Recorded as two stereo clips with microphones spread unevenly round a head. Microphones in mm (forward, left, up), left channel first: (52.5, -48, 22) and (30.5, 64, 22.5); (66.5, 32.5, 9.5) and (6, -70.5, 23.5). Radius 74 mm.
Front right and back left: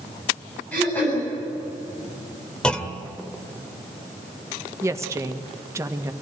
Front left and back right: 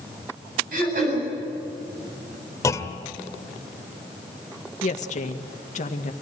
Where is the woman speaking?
35° left, 1.9 m.